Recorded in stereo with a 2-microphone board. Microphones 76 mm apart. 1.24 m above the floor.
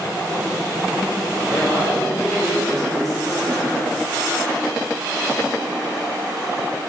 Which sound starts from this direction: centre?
A man speaking, at 1.5 s.